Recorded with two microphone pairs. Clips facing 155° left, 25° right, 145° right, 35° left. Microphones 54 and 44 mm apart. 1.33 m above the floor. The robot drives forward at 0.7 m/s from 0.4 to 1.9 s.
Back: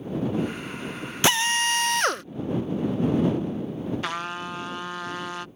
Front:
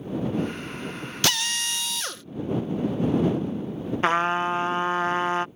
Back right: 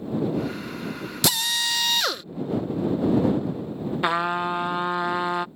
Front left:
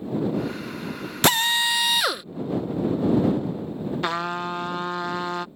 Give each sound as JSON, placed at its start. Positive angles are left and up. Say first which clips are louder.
{"t": 1.2, "sound": "a drill", "louder": "back 5 dB, front left 5 dB", "azimuth_deg": 85}
{"t": 4.0, "sound": "a trumpet", "louder": "front 9 dB, back right 5 dB", "azimuth_deg": -75}